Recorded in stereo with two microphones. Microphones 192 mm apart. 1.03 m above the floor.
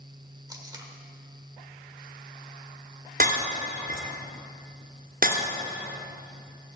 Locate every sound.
0.5 s tape being pulled: 20° right (ahead or behind), 1.6 m
3.2 s breaking glass: 50° right (ahead or behind), 2.0 m